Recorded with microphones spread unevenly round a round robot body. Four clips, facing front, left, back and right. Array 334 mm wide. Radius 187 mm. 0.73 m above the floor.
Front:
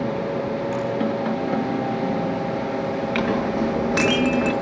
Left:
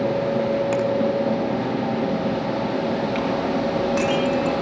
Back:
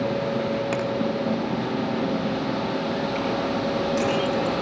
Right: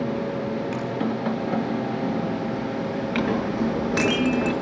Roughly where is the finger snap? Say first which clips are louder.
Left 7 dB, front 1 dB; behind.